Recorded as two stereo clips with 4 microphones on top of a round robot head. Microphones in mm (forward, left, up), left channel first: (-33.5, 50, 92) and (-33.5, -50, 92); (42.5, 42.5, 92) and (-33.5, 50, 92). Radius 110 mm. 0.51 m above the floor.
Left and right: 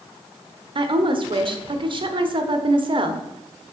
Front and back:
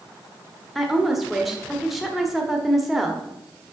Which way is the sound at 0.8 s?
100° right.